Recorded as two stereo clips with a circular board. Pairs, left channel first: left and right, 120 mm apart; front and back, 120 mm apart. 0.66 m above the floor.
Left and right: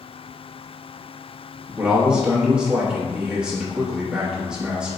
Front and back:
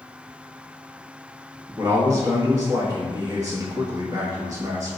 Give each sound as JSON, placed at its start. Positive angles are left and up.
{"t": 1.8, "sound": "a man speaking", "azimuth_deg": -165, "distance_m": 1.1}